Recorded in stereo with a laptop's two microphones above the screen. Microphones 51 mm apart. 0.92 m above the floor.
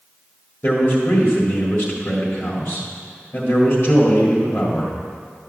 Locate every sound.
0.6 s a man speaking: 30° left (ahead or behind), 1.7 m